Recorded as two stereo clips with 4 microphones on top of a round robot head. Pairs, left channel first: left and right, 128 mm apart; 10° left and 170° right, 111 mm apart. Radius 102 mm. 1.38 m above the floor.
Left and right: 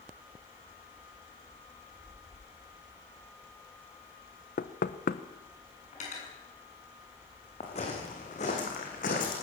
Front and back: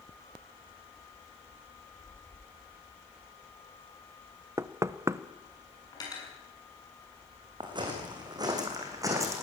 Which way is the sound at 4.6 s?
125° left.